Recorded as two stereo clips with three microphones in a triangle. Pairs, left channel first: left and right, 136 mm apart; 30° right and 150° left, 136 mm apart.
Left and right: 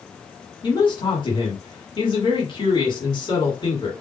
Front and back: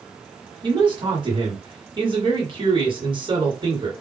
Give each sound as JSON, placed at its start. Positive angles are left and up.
{"t": 0.6, "sound": "a man speaking", "azimuth_deg": 120, "distance_m": 1.7}